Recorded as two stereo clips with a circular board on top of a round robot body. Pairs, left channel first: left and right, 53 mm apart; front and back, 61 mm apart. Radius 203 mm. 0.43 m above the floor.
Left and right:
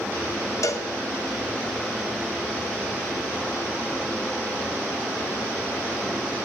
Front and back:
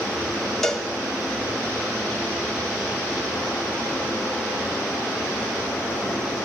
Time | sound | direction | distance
0.6 | a cowbell | 85° left | 0.7 m